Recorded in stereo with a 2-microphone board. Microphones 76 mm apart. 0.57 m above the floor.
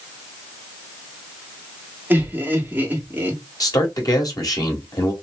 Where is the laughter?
25° right (ahead or behind), 1.4 m.